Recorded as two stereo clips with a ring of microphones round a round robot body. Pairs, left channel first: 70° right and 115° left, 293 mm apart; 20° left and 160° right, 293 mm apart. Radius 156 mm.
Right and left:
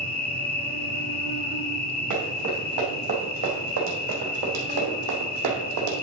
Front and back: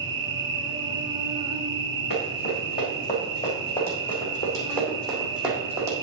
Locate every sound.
0.0 s an insect: 95° right, 0.7 m
2.1 s running footsteps: 80° left, 4 m; by 5.9 s 125° left, 3 m